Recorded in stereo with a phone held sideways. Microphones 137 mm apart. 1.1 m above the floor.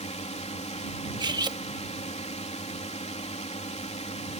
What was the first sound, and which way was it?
A drone, 50° left (ahead or behind).